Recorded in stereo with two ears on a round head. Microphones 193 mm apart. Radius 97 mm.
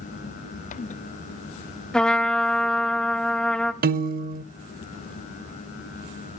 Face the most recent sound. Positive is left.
turn(degrees=-45)  # may be behind; listen again after turning